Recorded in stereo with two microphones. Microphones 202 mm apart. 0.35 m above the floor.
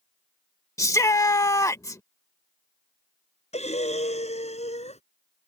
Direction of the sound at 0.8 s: 15° left (ahead or behind).